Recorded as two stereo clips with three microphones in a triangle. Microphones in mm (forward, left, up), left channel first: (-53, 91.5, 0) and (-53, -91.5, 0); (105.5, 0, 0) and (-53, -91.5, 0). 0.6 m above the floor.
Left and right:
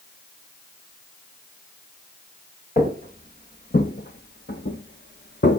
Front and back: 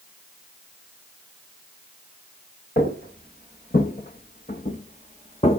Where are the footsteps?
55° left, 3.5 m; by 5.6 s 85° left, 1.9 m.